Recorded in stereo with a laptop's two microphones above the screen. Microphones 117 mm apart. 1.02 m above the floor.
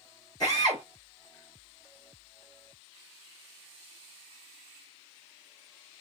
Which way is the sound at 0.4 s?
30° left (ahead or behind).